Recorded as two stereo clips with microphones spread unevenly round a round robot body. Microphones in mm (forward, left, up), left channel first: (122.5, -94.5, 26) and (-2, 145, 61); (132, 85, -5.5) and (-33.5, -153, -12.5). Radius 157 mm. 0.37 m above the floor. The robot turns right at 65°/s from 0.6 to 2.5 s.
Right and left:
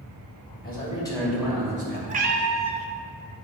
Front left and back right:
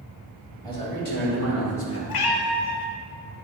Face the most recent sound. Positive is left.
turn(degrees=75)